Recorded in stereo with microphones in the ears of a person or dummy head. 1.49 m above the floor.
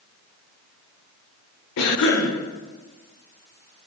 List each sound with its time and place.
1.8 s a cough: 65° left (ahead or behind), 1.2 m